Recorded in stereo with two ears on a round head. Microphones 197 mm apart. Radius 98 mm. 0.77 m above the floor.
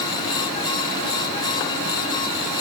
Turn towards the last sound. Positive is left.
No sound to turn to.